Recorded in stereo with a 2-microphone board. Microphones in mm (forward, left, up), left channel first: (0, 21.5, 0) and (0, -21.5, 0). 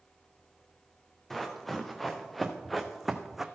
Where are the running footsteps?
5° left (ahead or behind), 1.9 m; by 3.5 s 10° right (ahead or behind), 0.7 m.